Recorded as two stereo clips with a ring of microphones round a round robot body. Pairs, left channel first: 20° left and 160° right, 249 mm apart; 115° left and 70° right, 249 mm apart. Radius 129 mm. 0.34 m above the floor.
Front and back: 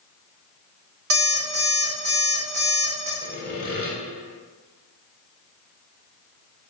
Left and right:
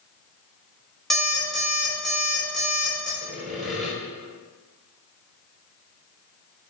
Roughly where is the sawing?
Ahead left.